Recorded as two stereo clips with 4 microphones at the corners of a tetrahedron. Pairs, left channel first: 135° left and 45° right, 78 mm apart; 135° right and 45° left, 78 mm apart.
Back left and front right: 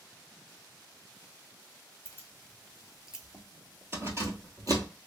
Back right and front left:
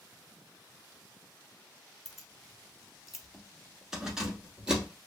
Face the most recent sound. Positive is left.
turn(degrees=-35)